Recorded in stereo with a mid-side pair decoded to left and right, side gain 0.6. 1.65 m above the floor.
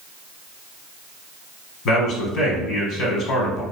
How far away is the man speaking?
About 1.3 m.